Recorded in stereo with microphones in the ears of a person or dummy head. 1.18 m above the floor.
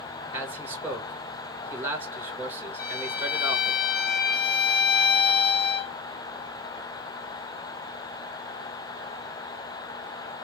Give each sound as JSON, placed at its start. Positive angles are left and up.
{"t": 0.3, "sound": "a man speaking", "side_deg": -20, "distance_m": 1.9}
{"t": 2.8, "sound": "a violin", "side_deg": 50, "distance_m": 0.5}